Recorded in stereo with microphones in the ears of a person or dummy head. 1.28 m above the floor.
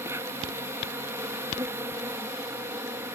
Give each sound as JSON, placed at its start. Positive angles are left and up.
{"t": 0.0, "sound": "an insect", "side_deg": -15}